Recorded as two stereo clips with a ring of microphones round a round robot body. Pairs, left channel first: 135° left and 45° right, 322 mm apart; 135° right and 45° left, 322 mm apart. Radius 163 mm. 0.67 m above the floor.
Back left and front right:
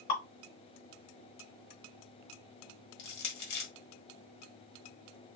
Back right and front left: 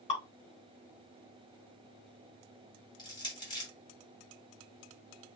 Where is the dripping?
150° left, 3.5 m.